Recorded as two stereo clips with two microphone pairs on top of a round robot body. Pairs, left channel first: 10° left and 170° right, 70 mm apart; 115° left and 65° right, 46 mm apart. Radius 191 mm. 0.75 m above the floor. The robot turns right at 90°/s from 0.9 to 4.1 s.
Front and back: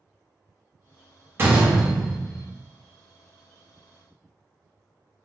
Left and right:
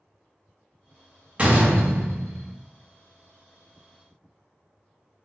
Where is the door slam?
125° right, 0.8 m; by 2.5 s 25° right, 0.8 m.